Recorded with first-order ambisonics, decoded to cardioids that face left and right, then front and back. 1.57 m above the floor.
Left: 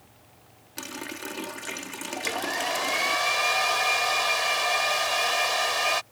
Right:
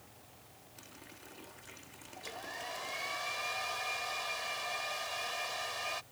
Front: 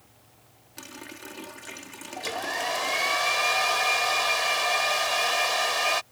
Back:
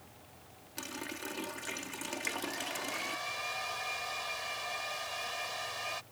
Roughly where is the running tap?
Left.